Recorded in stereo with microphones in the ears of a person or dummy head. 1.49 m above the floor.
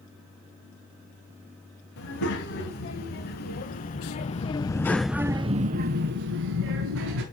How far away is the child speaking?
About 1.9 m.